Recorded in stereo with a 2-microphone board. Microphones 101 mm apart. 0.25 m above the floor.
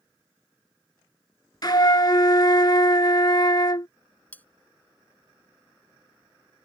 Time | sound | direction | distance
1.6 | a flute | 45° left (ahead or behind) | ?
4.3 | cutlery clinking | 15° left (ahead or behind) | ?